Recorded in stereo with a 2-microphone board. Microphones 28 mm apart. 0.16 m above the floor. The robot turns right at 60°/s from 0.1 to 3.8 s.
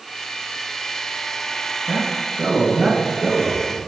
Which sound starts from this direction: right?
A man speaking, at 1.9 s.